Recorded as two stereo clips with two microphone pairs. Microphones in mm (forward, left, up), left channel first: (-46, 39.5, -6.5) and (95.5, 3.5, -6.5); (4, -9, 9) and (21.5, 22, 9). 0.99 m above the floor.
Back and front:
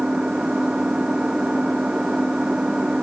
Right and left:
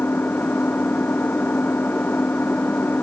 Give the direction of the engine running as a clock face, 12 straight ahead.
3 o'clock.